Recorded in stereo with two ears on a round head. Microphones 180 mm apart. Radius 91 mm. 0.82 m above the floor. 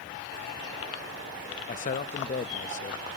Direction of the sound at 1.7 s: 40° left (ahead or behind).